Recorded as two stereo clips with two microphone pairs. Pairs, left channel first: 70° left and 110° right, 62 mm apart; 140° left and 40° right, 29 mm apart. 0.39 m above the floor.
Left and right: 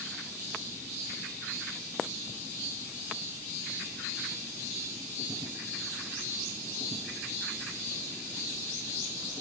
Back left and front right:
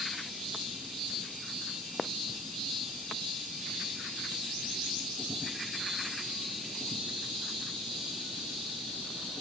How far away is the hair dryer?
No hair dryer in this recording.